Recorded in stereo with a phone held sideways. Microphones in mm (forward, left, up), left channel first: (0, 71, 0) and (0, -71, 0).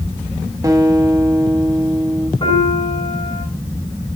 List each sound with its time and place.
0.6 s a guitar: 25° right (ahead or behind), 1.1 m
2.4 s a piano: 40° left (ahead or behind), 4.5 m